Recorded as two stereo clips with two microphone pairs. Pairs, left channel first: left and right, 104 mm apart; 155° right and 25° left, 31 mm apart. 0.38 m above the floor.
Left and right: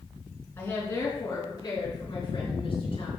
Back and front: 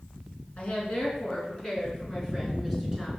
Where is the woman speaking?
155° left, 4 m; by 3.1 s 115° left, 4.5 m.